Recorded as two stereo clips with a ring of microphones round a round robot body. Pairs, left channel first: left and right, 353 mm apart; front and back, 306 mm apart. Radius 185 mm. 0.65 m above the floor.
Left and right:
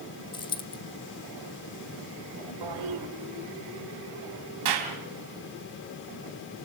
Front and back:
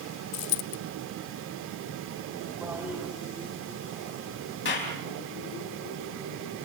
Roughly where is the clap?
Ahead right.